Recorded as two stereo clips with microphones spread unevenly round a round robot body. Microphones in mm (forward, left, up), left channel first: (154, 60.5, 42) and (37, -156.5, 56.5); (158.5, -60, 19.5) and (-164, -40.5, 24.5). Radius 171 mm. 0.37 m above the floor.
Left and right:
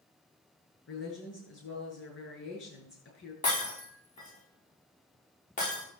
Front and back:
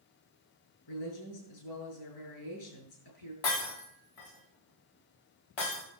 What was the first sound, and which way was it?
A woman speaking, 25° left.